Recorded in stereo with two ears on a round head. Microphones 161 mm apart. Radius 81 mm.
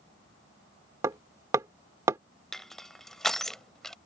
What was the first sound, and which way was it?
Hammering, 15° right (ahead or behind).